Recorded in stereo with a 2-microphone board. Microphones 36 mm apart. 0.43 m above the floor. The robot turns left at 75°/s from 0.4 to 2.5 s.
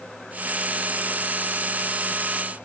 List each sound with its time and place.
Only background noise.